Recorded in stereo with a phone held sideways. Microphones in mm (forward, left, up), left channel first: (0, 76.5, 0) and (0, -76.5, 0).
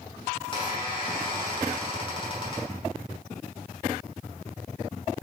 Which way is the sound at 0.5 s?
35° left (ahead or behind).